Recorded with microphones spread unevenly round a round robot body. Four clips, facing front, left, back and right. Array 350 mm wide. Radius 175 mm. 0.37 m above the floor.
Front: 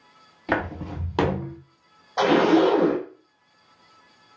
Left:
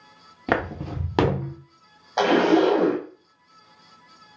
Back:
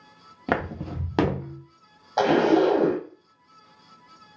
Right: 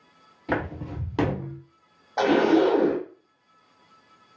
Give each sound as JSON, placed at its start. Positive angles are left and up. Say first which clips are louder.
{"t": 0.5, "sound": "footsteps", "louder": "left 3 dB, front 1 dB", "azimuth_deg": 105, "distance_m": 1.6}
{"t": 2.2, "sound": "a zipper", "louder": "left 1 dB, front 1 dB", "azimuth_deg": -175, "distance_m": 1.2}